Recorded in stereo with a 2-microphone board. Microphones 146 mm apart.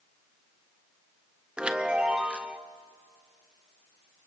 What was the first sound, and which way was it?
A chime, 5° right (ahead or behind).